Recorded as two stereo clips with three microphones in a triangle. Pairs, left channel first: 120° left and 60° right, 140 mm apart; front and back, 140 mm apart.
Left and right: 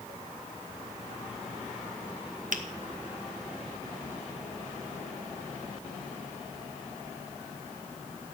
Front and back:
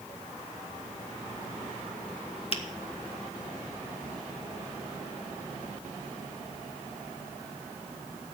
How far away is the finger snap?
About 1.3 m.